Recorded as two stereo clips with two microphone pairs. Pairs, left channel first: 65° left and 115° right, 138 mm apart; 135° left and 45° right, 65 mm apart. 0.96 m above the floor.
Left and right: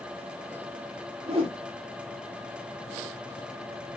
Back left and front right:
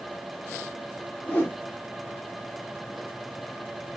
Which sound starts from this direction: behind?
A whoosh, at 1.3 s.